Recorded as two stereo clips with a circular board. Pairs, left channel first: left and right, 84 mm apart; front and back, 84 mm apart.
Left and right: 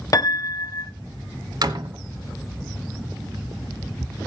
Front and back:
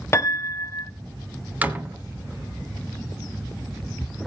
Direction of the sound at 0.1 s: 50° left.